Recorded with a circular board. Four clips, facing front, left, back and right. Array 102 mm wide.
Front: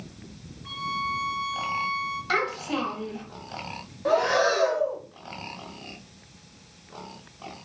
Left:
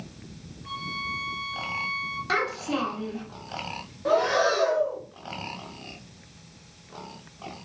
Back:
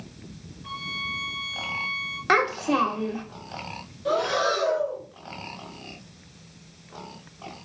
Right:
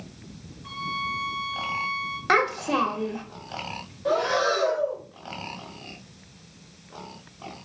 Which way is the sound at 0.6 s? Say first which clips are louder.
Right 4 dB, front 6 dB; 165° right.